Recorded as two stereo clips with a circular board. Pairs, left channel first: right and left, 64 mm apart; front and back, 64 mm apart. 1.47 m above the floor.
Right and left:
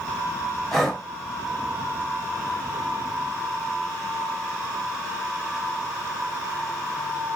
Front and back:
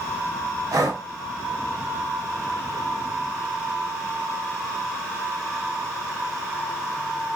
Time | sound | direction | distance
0.7 | breathing | 175° right | 0.8 m